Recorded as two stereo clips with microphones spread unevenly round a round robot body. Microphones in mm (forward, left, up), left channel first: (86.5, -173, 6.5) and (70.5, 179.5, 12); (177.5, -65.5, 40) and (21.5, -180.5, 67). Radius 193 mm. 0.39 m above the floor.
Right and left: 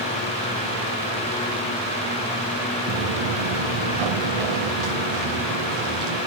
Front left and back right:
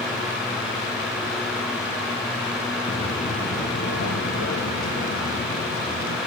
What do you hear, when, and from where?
2.9 s footsteps: 100° left, 1.9 m; by 6.2 s 65° left, 4 m